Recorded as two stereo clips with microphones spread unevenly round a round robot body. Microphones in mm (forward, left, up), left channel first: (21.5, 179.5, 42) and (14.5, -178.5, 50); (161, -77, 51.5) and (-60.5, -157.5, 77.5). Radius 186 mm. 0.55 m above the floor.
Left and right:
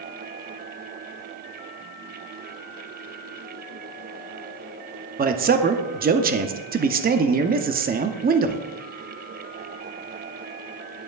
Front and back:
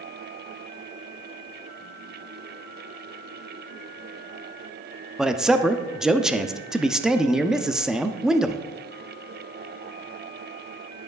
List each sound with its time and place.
5.2 s a man speaking: 60° right, 0.8 m